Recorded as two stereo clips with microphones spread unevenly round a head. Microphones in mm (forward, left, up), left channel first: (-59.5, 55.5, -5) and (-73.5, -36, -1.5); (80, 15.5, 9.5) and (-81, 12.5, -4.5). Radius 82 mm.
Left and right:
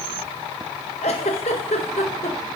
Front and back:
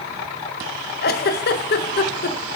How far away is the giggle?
About 0.7 m.